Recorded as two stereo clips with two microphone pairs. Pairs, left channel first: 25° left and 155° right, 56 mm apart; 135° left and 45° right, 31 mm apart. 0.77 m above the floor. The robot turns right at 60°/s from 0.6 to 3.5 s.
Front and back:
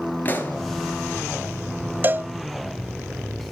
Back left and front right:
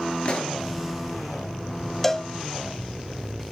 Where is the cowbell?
150° right, 0.6 m; by 2.3 s 135° right, 0.6 m.